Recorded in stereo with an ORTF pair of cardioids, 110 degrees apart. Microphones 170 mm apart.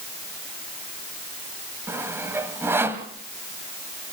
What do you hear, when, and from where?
1.9 s sawing: 15° right, 1.9 m